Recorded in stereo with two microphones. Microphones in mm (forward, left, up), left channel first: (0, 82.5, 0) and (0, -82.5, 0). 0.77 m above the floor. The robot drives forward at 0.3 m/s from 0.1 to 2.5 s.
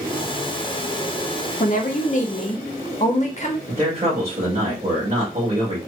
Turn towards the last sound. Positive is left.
turn(degrees=-45)  # may be behind; listen again after turning